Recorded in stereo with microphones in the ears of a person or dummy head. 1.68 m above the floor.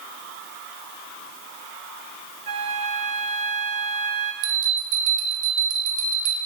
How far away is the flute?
About 0.8 m.